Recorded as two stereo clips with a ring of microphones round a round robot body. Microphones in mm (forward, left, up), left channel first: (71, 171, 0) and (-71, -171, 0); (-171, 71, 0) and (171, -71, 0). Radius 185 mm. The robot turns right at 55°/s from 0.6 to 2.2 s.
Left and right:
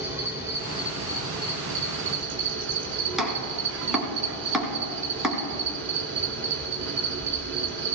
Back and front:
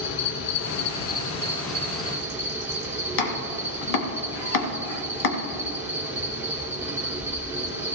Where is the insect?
170° left, 1.2 m; by 8.0 s 100° right, 1.2 m.